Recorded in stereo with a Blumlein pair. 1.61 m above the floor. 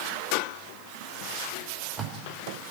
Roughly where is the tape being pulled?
Ahead.